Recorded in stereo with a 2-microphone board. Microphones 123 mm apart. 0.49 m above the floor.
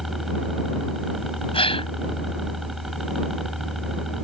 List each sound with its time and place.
0.0 s a helicopter: centre (ahead or behind)
1.5 s a gasp: 50° left (ahead or behind)